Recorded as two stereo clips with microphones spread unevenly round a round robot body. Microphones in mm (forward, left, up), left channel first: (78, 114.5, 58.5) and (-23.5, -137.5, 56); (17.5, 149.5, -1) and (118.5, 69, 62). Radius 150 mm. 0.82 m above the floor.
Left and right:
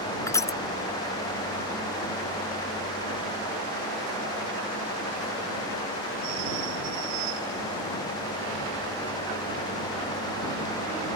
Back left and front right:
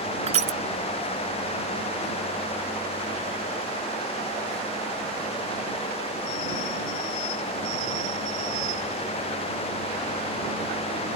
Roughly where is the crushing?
Ahead.